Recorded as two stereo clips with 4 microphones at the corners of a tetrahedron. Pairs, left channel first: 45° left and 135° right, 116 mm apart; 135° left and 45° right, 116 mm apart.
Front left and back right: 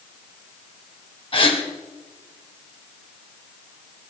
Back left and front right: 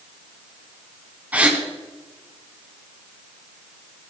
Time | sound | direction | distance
1.3 | a gasp | 30° left | 2.5 m